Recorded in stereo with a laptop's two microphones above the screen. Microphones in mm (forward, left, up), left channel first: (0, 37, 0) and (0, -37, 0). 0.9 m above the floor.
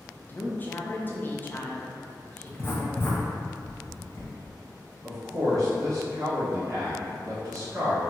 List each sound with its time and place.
0.3 s a woman speaking: 25° left (ahead or behind), 0.6 m
2.5 s writing: 30° left (ahead or behind), 0.6 m
5.0 s a man speaking: 45° right (ahead or behind), 0.7 m